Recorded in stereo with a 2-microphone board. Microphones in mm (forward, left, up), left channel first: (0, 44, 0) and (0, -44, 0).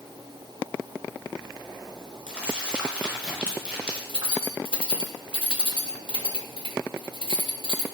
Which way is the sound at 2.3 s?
10° right (ahead or behind).